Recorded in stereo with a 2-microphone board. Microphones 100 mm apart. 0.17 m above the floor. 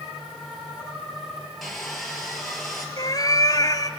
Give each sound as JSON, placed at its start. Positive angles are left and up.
{"t": 1.6, "sound": "sawing", "side_deg": 0, "distance_m": 3.0}
{"t": 3.0, "sound": "a cat meowing", "side_deg": 40, "distance_m": 0.8}